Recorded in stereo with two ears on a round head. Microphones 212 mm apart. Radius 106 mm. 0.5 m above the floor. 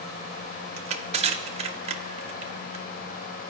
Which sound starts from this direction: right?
Crushing, at 0.8 s.